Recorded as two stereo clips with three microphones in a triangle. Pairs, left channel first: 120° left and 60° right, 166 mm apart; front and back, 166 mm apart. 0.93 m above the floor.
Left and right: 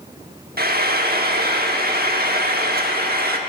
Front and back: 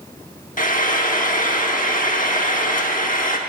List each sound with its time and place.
0.6 s frying: 35° right, 1.0 m